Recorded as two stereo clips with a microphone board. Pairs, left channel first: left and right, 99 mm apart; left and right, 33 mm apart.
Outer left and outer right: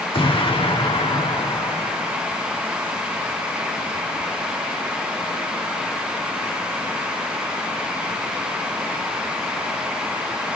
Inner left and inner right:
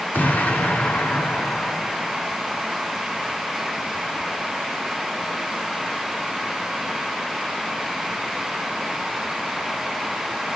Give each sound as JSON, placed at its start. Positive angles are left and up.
{"t": 0.1, "sound": "an explosion", "side_deg": 60, "distance_m": 2.5}